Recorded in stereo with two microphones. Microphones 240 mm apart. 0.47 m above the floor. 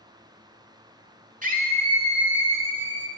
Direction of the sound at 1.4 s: 35° right (ahead or behind).